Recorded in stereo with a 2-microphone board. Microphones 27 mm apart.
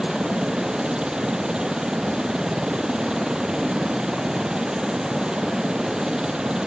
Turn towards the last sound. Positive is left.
turn(degrees=-30)  # may be behind; listen again after turning